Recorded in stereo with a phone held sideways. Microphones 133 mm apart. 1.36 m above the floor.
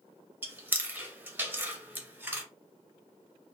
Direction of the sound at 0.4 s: 15° right (ahead or behind).